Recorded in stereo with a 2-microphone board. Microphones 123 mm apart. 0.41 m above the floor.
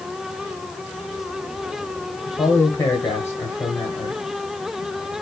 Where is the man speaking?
20° left (ahead or behind), 2 m.